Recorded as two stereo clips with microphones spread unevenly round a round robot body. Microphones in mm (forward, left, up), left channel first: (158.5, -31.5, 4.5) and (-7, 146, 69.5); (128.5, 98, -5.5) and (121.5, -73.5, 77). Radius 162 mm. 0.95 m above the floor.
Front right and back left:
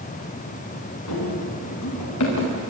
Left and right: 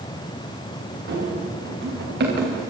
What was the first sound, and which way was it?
Running footsteps, 80° right.